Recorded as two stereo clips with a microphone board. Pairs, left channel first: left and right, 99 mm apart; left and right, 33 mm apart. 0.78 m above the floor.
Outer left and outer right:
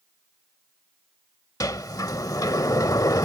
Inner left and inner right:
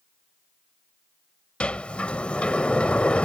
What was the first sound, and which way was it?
A sliding door, 40° left (ahead or behind).